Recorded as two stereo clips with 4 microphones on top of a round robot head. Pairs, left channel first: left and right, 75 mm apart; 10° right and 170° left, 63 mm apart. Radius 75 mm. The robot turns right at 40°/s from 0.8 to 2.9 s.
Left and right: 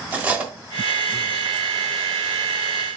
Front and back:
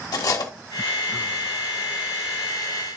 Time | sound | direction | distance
0.1 | cutlery clinking | 20° right | 1.2 m